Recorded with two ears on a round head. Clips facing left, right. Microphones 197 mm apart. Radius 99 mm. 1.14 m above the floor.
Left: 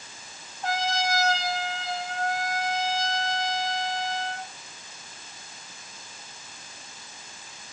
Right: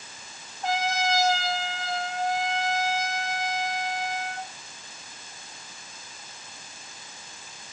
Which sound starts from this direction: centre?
A trumpet, at 0.6 s.